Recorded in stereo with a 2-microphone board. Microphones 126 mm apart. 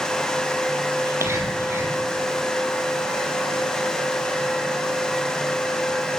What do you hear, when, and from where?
1.0 s whispering: 20° right (ahead or behind), 5.5 m